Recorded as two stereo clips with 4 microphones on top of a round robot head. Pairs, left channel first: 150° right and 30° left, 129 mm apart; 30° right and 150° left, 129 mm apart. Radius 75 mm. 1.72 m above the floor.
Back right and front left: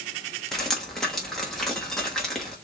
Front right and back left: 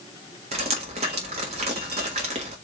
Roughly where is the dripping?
Behind left.